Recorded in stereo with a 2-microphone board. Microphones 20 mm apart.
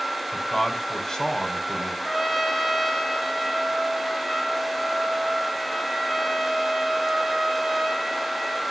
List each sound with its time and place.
0.3 s a man speaking: 25° left (ahead or behind), 1.5 m
2.0 s a trumpet: centre (ahead or behind), 1.4 m